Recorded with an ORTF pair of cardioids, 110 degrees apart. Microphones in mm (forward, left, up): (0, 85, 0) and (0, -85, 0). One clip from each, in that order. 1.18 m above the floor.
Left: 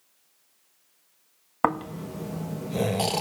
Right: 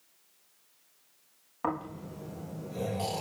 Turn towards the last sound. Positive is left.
turn(degrees=65)